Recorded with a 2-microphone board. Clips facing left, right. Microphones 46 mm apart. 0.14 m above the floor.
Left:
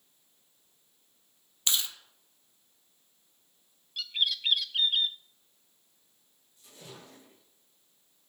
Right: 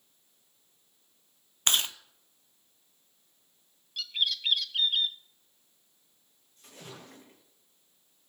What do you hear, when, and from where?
1.7 s chewing: 50° right (ahead or behind), 0.6 m
4.0 s a bird: 5° left (ahead or behind), 0.6 m
6.6 s a splash: 55° right (ahead or behind), 8.5 m